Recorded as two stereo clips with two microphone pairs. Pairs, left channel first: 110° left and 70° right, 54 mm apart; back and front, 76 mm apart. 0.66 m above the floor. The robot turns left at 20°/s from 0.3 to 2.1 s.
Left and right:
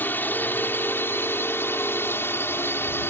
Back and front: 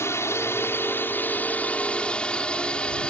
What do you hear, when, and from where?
0.0 s a drone: 145° left; by 3.1 s 110° left